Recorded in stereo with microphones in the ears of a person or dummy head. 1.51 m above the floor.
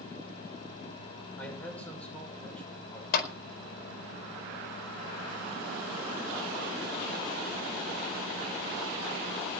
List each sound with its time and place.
1.4 s a man speaking: 10° left (ahead or behind), 7 m
3.1 s a clap: 70° left (ahead or behind), 4.5 m